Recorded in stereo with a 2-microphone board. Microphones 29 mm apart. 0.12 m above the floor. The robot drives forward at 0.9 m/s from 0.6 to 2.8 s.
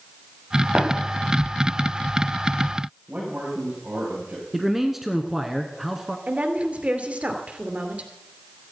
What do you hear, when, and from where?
0.8 s tapping: 50° right (ahead or behind), 7.5 m; by 0.9 s 45° right (ahead or behind), 7.5 m
3.1 s a man speaking: 55° right (ahead or behind), 7.5 m
4.5 s a man speaking: 10° right (ahead or behind), 1.5 m
6.3 s a woman speaking: 50° right (ahead or behind), 2.5 m